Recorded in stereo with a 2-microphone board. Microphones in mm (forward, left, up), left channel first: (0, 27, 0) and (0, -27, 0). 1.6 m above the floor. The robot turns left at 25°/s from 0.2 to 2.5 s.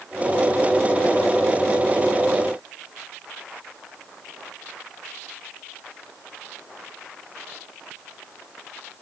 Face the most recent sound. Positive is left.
No sound to turn to.